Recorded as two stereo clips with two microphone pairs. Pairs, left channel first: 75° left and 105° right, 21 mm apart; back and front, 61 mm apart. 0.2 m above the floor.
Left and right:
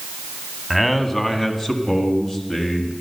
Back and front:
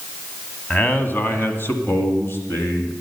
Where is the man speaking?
155° left, 1.2 m; by 2.9 s 135° left, 2.5 m.